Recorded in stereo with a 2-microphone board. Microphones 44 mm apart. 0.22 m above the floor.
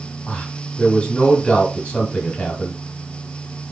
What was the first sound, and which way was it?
A man speaking, 30° left (ahead or behind).